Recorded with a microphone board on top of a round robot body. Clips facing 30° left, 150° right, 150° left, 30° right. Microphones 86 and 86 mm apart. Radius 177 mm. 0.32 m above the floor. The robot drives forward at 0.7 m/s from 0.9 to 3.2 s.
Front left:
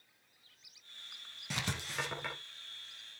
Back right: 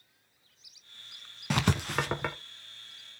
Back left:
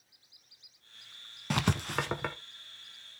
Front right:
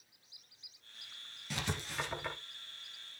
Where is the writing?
Straight behind, 0.6 m.